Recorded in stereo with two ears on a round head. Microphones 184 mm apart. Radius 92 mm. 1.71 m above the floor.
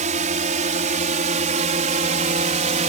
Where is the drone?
35° right (ahead or behind).